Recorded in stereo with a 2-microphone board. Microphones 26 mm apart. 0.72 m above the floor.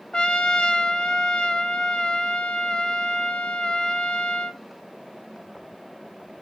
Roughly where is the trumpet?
Left.